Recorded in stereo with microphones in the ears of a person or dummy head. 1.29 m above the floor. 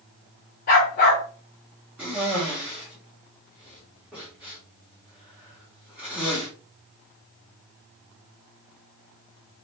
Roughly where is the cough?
Centre.